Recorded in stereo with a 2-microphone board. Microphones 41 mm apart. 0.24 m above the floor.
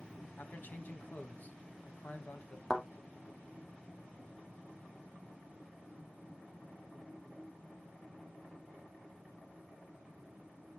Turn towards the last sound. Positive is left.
turn(degrees=10)  # may be behind; listen again after turning